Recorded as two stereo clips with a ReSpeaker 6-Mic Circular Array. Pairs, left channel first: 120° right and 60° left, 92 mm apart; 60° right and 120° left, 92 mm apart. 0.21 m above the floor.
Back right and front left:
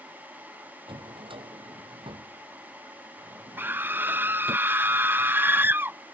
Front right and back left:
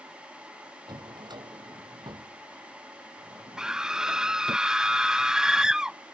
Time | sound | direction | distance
0.9 | a drawer | 80° left | ?
3.6 | a scream | 50° left | ?